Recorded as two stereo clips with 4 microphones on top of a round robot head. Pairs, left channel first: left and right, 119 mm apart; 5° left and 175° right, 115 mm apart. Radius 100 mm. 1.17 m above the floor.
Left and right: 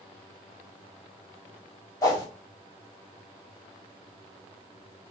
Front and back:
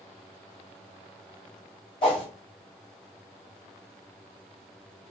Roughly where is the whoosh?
Ahead left.